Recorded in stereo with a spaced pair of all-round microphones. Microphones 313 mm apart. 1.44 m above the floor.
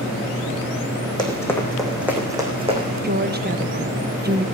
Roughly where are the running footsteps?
Centre.